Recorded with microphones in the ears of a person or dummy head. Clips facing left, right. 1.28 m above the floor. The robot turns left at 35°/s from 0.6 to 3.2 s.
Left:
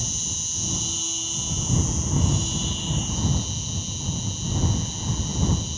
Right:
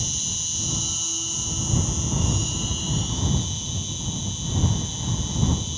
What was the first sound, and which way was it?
An insect, 70° right.